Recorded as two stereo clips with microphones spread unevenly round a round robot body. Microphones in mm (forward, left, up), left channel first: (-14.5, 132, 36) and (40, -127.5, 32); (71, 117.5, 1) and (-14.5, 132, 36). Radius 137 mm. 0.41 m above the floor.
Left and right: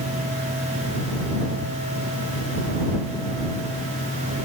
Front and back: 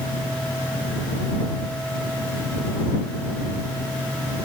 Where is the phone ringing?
No phone ringing in this recording.